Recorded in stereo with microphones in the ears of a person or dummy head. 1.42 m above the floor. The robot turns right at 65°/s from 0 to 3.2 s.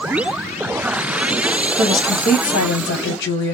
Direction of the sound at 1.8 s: 20° left.